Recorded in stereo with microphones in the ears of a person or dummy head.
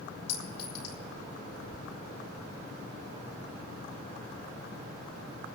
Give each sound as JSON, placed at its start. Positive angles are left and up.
{"t": 0.3, "sound": "a clink", "side_deg": 60, "distance_m": 3.0}